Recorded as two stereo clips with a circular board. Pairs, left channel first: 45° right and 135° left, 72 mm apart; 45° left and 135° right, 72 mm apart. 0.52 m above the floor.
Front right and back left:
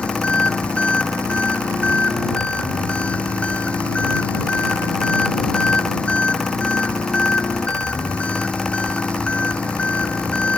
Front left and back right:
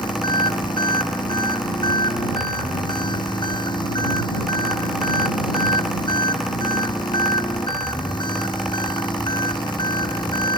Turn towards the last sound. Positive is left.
turn(degrees=30)